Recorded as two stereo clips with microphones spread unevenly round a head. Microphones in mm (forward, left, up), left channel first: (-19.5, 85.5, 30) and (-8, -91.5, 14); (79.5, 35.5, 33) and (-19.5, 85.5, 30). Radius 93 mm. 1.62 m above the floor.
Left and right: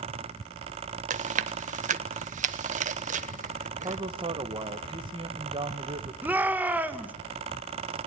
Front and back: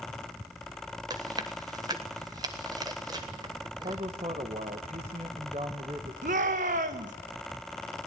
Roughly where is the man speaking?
Behind right.